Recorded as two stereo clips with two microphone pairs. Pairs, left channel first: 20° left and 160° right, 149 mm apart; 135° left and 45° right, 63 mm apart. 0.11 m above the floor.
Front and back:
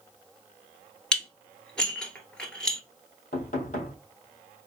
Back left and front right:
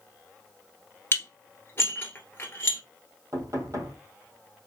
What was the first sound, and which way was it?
Dishes clattering, 100° left.